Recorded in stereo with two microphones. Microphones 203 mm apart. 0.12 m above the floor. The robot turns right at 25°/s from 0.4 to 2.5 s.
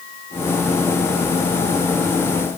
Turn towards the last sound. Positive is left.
No sound to turn to.